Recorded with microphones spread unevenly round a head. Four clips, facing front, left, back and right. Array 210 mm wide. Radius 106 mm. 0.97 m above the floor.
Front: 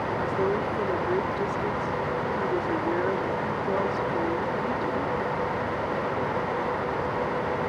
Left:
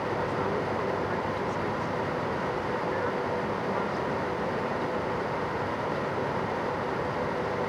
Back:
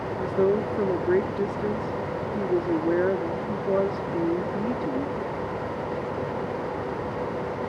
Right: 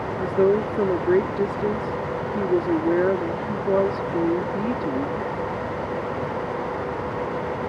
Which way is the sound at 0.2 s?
115° right.